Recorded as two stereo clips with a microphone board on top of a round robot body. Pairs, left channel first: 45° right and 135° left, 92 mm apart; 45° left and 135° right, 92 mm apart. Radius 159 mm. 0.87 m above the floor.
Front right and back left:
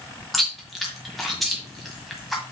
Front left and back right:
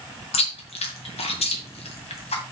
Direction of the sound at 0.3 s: 45° left.